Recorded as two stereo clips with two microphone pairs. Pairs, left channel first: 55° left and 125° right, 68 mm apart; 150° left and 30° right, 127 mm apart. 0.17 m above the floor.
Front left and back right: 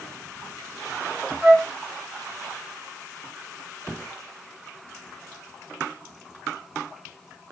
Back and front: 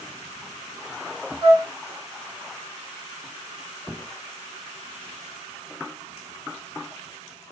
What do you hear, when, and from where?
1.4 s a flute: 65° right, 2 m